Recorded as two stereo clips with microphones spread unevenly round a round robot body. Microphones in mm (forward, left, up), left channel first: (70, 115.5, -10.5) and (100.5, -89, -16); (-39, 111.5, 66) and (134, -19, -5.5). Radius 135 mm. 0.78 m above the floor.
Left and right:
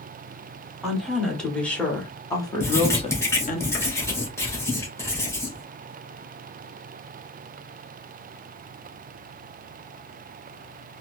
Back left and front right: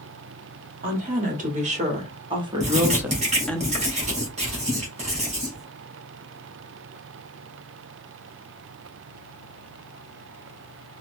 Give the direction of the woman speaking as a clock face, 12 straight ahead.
12 o'clock.